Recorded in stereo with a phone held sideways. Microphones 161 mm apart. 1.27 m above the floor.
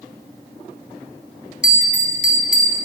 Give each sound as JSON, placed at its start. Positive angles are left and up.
{"t": 1.6, "sound": "a bell", "side_deg": 55, "distance_m": 1.5}